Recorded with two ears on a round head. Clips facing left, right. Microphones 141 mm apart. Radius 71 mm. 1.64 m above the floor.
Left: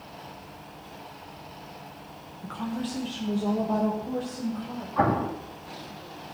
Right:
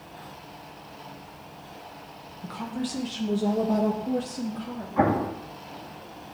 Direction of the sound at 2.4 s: 5° right (ahead or behind).